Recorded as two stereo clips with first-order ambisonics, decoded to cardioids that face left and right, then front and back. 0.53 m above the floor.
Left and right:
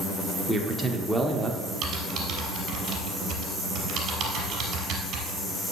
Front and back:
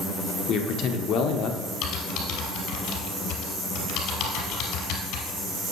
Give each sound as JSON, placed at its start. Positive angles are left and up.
{"t": 0.5, "sound": "a man speaking", "azimuth_deg": -10, "distance_m": 1.1}
{"t": 1.8, "sound": "typing on a keyboard", "azimuth_deg": -35, "distance_m": 3.0}